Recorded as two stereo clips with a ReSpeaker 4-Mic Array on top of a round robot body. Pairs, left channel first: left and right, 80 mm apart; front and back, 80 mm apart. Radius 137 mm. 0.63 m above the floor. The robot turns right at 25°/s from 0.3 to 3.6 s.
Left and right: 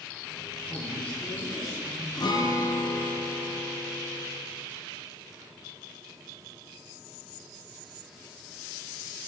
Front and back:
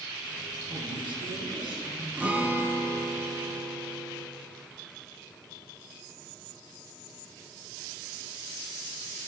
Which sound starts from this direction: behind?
A man speaking, at 0.7 s.